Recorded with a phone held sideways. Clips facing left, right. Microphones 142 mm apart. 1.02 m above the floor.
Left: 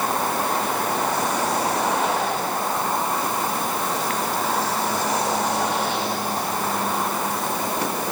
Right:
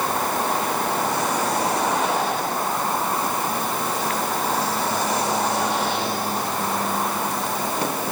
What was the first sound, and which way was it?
Only background noise.